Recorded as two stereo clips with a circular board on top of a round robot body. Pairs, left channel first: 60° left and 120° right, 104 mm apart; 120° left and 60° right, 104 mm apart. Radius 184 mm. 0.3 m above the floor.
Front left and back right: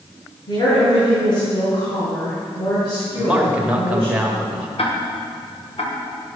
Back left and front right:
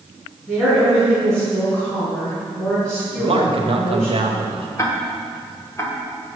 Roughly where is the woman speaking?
Ahead left.